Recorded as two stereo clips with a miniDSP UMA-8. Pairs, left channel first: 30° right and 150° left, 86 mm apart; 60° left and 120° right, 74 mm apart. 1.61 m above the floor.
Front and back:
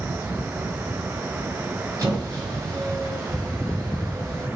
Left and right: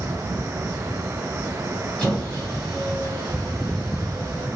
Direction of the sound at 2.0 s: 135° left.